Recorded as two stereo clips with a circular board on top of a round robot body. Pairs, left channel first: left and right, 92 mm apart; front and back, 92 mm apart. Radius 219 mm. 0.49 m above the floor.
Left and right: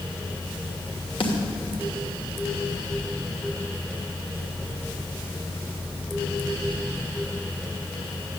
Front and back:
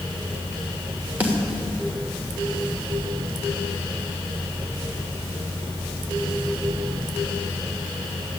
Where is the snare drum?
105° left, 3 m.